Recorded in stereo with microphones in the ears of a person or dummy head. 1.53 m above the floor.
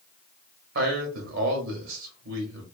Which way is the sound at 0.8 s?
70° right (ahead or behind).